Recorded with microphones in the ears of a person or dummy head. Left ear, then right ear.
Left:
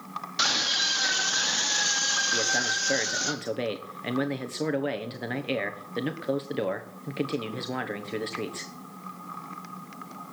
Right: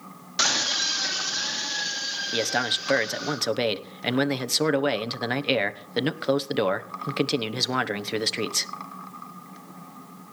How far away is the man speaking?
About 1.0 m.